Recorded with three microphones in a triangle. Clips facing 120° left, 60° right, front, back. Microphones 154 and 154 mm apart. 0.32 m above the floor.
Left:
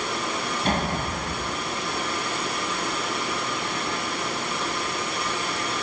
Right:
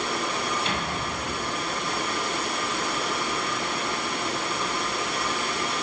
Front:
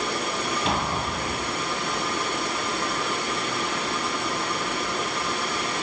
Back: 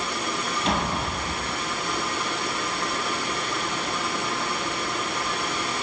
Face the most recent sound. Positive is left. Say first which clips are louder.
# left 4 dB, back 3 dB
turn(degrees=90)